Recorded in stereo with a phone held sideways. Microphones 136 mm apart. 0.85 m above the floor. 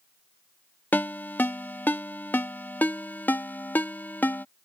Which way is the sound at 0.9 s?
15° left (ahead or behind).